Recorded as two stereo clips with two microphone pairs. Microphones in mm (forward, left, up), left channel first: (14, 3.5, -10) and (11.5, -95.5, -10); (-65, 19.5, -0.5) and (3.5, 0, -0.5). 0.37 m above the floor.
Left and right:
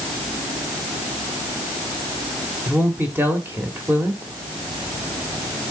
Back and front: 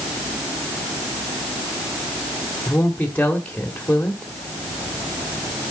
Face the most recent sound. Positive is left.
turn(degrees=-140)